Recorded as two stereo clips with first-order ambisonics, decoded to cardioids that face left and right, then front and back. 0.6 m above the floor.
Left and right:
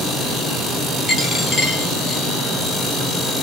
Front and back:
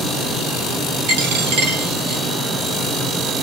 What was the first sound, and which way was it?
A dropped coin, 155° left.